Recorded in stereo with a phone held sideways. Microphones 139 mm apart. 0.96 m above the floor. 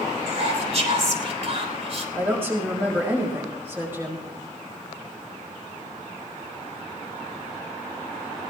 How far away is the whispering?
About 3.5 m.